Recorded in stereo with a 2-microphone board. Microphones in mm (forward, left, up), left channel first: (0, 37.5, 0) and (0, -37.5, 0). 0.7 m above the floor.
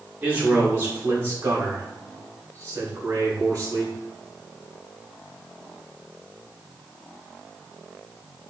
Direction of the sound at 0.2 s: 20° right (ahead or behind).